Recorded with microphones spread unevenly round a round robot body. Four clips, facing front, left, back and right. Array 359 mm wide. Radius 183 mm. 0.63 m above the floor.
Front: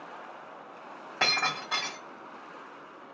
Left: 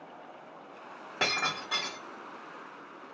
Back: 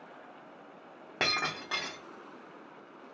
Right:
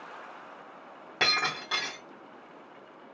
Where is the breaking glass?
175° right, 1.1 m.